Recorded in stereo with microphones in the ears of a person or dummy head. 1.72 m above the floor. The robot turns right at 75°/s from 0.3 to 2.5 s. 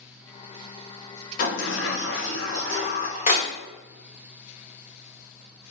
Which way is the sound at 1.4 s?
45° left (ahead or behind).